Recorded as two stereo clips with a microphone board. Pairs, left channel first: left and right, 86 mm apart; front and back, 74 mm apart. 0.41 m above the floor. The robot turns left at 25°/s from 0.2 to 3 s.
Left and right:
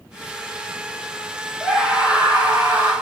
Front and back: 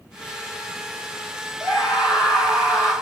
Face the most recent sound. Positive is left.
turn(degrees=-40)